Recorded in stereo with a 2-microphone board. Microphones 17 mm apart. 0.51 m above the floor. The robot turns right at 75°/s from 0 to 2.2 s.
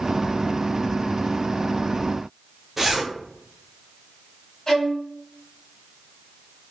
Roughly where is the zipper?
Centre.